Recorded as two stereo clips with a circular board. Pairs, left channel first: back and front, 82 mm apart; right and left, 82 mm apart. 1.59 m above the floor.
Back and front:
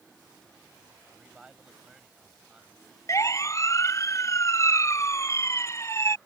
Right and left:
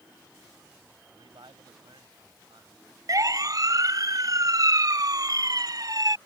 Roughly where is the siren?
Behind left.